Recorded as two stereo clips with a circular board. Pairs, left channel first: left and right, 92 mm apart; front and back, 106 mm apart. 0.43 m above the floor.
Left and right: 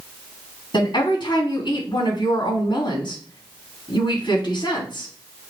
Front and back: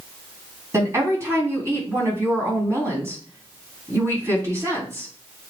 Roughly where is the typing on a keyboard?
I don't hear typing on a keyboard.